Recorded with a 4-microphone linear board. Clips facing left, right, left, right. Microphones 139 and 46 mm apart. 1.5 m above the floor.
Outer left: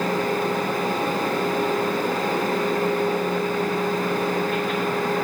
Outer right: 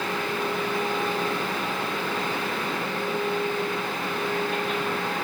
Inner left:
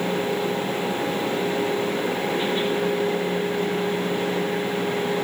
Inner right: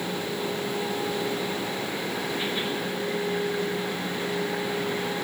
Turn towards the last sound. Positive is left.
No sound to turn to.